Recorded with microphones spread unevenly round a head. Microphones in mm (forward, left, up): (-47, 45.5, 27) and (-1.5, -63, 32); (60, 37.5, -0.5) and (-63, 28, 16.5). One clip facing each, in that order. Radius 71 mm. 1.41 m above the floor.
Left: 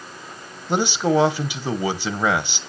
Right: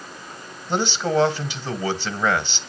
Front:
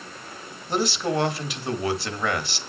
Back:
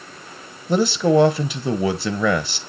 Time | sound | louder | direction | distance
0.7 | a man speaking | left 3 dB, back 8 dB | 170° right | 1.2 m